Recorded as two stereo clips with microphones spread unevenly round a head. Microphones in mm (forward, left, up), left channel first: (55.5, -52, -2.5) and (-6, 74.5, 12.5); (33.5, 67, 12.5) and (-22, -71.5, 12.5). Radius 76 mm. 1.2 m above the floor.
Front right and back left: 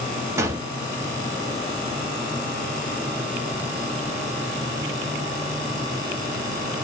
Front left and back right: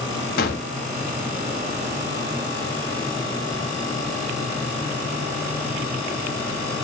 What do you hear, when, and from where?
0.4 s a gunshot: 50° left, 0.8 m